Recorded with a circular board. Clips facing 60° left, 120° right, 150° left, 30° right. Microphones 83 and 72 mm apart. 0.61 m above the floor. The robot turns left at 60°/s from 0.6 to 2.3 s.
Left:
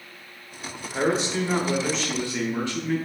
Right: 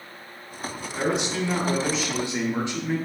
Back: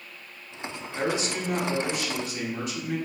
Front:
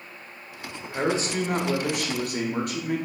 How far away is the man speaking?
About 0.8 m.